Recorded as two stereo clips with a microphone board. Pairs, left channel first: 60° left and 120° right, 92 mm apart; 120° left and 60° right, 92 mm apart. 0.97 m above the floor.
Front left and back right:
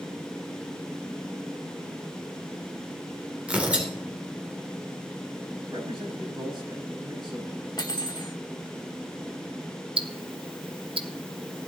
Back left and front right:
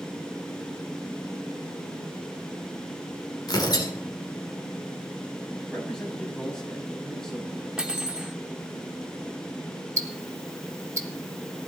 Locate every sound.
3.5 s tearing paper: 165° left, 3 m
5.7 s a man speaking: 160° right, 5.5 m
7.8 s cutlery clinking: 20° left, 1.1 m
10.0 s ticking: 115° right, 1.2 m